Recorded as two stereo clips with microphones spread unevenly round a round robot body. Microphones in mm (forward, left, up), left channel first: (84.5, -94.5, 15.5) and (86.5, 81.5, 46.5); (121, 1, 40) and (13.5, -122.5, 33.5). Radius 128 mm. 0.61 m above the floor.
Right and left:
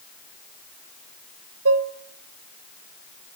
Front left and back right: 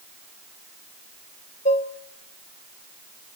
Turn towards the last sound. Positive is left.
turn(degrees=105)